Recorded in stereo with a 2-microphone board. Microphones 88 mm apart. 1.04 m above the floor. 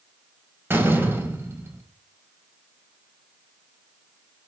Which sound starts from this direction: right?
A door slam, at 0.7 s.